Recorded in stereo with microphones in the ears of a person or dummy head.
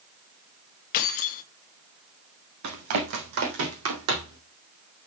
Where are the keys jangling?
45° left (ahead or behind), 0.9 m.